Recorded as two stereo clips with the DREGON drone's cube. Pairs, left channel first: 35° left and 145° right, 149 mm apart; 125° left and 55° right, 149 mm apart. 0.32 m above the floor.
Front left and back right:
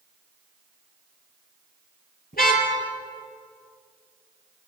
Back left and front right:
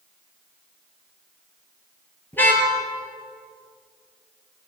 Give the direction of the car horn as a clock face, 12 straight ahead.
10 o'clock.